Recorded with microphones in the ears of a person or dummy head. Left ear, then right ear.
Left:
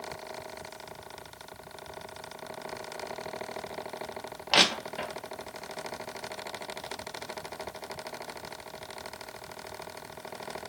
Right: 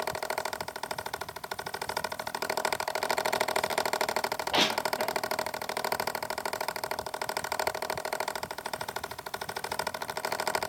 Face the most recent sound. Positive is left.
turn(degrees=65)  # may be behind; listen again after turning